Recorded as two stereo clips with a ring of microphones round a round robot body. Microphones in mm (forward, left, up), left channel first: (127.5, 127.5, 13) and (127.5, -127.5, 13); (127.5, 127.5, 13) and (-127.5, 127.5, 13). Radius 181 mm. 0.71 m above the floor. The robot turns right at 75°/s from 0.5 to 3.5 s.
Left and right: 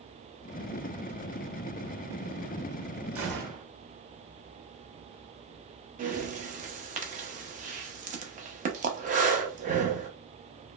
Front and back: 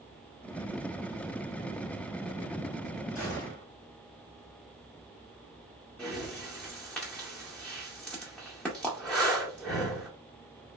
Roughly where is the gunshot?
Ahead right.